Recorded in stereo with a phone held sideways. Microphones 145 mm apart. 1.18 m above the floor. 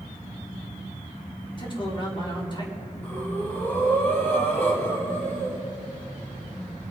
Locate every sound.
1.6 s a man speaking: 35° left (ahead or behind), 3.5 m
3.0 s breathing: 15° left (ahead or behind), 3.5 m